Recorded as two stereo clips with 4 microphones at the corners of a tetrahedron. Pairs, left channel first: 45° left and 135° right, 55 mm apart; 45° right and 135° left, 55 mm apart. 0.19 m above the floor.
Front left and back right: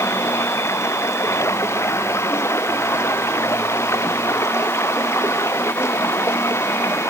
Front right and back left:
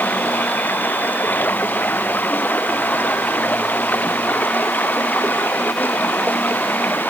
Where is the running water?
10° left.